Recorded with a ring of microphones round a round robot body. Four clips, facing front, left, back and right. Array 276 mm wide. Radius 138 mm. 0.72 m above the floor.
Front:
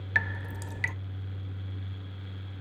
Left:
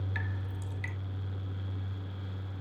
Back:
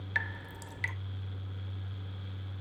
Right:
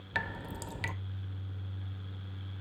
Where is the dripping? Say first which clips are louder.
Right 3 dB, front 6 dB; 60° right, 0.6 m.